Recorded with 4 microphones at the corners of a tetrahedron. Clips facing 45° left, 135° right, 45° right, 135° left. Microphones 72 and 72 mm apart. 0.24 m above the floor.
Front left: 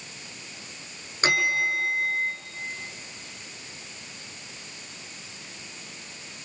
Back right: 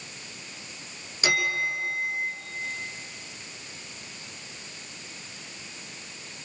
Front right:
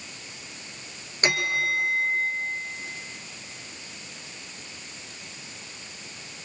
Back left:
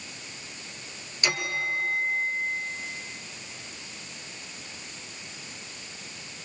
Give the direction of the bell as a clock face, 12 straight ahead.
12 o'clock.